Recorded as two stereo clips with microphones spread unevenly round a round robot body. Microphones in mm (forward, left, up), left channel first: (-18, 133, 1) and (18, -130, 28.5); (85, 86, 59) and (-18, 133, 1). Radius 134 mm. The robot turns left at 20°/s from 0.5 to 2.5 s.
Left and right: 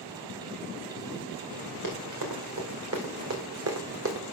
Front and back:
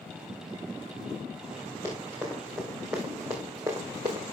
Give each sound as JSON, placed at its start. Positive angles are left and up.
{"t": 1.8, "sound": "running footsteps", "azimuth_deg": -95, "distance_m": 3.0}